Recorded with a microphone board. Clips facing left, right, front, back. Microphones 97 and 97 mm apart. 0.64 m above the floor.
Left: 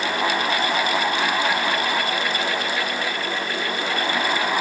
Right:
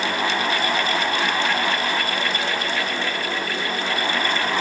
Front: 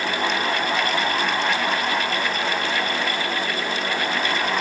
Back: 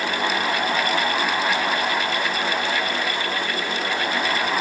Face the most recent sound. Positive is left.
No sound to turn to.